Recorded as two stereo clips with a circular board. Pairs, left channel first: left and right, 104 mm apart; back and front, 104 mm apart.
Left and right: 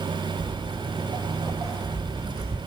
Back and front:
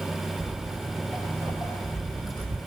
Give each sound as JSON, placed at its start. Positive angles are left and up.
{"t": 0.4, "sound": "footsteps", "azimuth_deg": -50, "distance_m": 0.6}